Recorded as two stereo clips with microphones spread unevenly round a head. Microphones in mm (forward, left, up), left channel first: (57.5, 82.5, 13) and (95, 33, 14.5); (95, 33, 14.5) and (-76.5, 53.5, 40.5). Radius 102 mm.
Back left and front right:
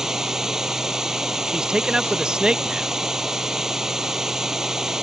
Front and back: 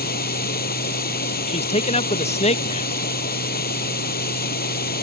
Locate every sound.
0.0 s running water: 30° left
1.5 s a man speaking: 20° left